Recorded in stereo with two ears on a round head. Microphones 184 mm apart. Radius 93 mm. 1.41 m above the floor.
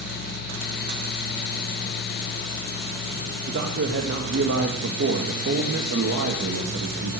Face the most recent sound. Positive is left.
turn(degrees=-65)  # may be behind; listen again after turning